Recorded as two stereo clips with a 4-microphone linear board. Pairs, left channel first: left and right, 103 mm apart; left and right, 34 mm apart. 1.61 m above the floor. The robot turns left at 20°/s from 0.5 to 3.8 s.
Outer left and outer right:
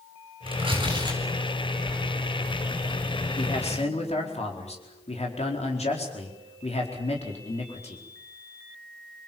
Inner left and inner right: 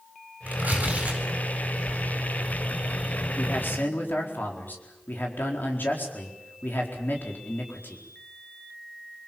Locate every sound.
0.5 s tearing paper: 55° right (ahead or behind), 8.5 m; by 2.2 s 20° right (ahead or behind), 8.5 m
3.4 s a man speaking: 85° left, 4.5 m